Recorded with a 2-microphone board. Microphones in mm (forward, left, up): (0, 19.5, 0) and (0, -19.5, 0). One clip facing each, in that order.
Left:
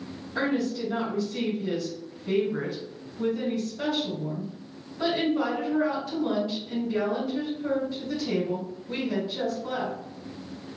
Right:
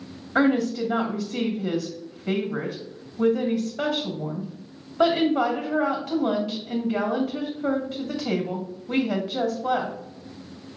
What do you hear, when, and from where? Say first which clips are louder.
0.3 s a woman speaking: right 6 dB; 80° right, 1.3 m